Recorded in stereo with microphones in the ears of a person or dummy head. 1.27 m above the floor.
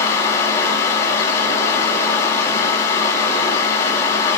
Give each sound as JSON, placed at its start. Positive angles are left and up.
{"t": 0.0, "sound": "a fan", "side_deg": 15, "distance_m": 1.7}